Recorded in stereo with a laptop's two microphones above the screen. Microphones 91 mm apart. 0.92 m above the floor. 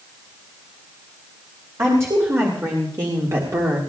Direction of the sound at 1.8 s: 35° right (ahead or behind).